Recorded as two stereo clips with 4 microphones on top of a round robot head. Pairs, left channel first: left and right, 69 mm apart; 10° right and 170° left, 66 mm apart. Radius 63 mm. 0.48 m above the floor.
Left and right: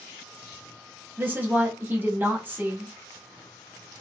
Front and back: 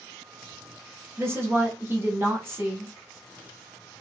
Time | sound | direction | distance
1.2 | a woman speaking | 145° right | 1.1 m